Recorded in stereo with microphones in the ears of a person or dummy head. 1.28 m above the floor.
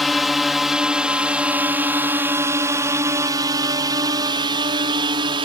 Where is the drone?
Centre (ahead or behind); by 5.5 s 25° right (ahead or behind).